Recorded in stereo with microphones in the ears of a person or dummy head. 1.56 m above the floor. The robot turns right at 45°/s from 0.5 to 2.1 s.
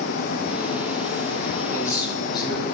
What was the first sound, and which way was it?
A man speaking, 10° left (ahead or behind).